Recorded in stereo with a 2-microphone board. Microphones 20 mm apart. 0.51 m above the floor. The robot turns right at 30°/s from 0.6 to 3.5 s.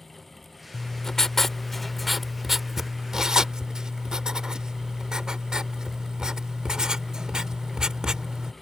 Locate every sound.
0.7 s writing: 145° left; by 8.5 s 135° right